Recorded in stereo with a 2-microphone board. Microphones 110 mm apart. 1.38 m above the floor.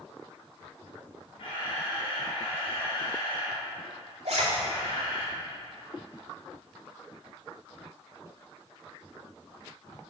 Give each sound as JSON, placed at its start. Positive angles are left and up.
{"t": 1.4, "sound": "a camera shutter", "side_deg": 60, "distance_m": 2.5}
{"t": 4.2, "sound": "a zipper", "side_deg": -75, "distance_m": 2.0}